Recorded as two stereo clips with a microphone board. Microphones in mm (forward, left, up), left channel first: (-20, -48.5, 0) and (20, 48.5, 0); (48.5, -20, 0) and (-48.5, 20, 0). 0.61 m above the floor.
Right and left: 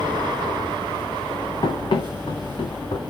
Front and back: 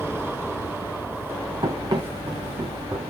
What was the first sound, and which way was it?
Running footsteps, 160° right.